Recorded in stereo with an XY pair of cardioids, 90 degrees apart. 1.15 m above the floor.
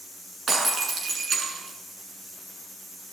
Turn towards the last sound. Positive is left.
turn(degrees=-55)